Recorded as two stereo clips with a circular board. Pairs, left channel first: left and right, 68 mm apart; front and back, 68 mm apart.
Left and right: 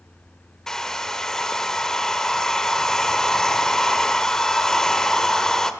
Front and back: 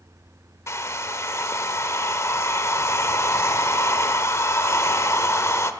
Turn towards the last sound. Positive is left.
turn(degrees=10)